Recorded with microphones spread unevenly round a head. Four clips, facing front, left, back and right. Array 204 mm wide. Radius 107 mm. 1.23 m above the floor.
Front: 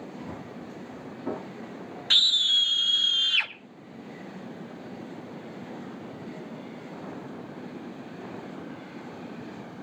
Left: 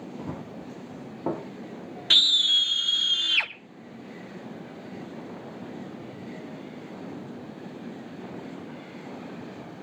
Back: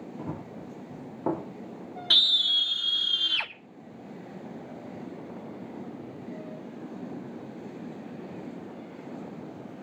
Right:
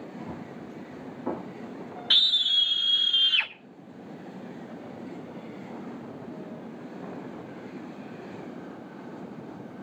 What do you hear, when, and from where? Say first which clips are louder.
0.2 s running footsteps: left 2 dB, back 1 dB; 140° left, 4.5 m
2.1 s a scream: left 4 dB, front 1 dB; 125° left, 1.3 m